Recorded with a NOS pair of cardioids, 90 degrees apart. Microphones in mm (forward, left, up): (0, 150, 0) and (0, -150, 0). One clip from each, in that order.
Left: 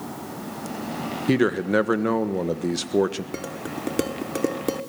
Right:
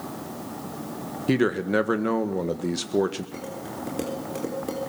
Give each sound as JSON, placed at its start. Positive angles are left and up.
{"t": 1.3, "sound": "a man speaking", "azimuth_deg": 10, "distance_m": 1.7}
{"t": 3.3, "sound": "dishes clattering", "azimuth_deg": 55, "distance_m": 3.5}